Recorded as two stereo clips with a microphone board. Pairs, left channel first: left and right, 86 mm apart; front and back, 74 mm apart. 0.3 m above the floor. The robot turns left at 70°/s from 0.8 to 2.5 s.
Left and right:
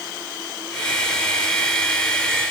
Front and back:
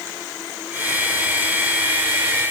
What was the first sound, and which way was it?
Only background noise.